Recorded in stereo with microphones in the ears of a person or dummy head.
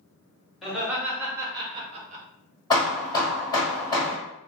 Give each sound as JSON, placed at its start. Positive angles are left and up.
{"t": 0.6, "sound": "laughter", "side_deg": 0, "distance_m": 1.6}
{"t": 2.7, "sound": "hammering", "side_deg": 20, "distance_m": 1.6}